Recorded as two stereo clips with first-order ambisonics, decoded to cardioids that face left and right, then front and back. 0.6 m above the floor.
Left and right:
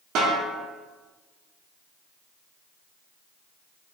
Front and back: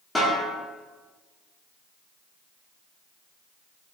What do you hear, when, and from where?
0.1 s a snare drum: 80° right, 1.0 m